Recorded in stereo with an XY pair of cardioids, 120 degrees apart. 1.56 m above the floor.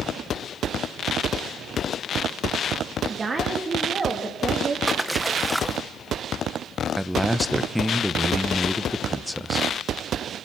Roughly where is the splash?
Ahead.